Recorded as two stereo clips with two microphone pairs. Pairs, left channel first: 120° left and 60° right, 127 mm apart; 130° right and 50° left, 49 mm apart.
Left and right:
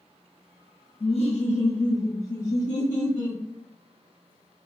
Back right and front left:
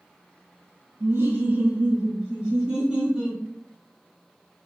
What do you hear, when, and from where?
1.0 s laughter: 75° left, 0.6 m; by 3.4 s 130° left, 1.8 m